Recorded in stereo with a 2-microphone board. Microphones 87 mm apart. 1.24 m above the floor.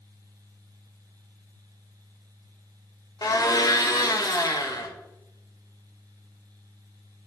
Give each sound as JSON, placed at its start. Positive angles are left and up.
{"t": 3.2, "sound": "a blender", "side_deg": 50, "distance_m": 0.6}